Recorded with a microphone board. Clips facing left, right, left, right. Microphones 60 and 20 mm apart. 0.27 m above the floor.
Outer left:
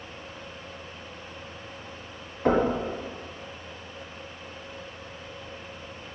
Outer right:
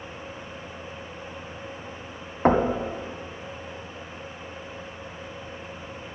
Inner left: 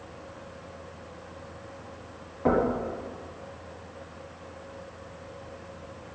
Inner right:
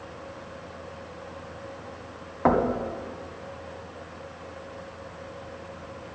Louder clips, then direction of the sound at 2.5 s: Outer right 2 dB, inner right 2 dB; 45° right (ahead or behind).